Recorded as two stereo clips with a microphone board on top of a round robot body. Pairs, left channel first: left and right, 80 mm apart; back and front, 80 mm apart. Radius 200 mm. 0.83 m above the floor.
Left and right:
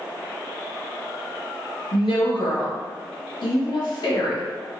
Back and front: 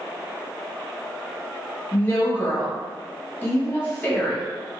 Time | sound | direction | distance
1.9 | a woman speaking | 110° left | 1.1 m